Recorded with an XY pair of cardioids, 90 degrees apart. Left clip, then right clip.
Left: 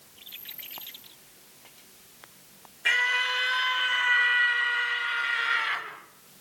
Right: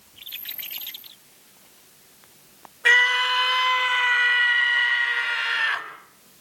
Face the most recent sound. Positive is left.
turn(degrees=-70)